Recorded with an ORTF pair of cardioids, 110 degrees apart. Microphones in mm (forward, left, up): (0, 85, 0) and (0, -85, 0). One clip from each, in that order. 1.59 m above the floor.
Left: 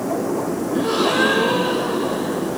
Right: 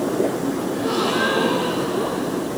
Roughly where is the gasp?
Ahead.